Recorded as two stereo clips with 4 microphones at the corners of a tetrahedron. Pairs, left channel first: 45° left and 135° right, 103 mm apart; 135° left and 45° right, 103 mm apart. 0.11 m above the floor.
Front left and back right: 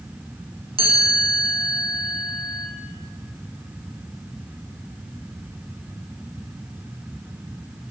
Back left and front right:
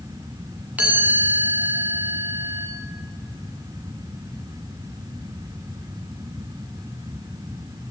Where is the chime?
120° right, 5 m.